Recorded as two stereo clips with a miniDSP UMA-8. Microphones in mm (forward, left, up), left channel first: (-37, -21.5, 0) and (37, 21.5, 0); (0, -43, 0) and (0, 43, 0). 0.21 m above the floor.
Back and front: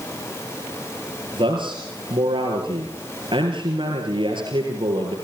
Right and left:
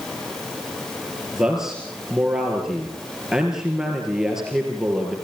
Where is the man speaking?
5° left, 4 m.